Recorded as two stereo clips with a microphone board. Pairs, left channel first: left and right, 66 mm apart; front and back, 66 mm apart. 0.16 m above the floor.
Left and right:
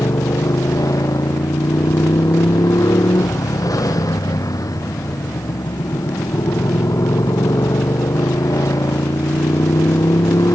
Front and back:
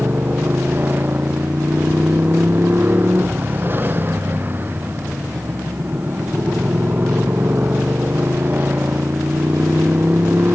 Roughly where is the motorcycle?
Behind left.